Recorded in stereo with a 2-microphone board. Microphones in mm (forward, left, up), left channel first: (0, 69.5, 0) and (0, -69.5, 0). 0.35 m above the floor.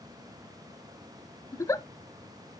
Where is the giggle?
20° left (ahead or behind), 0.7 m.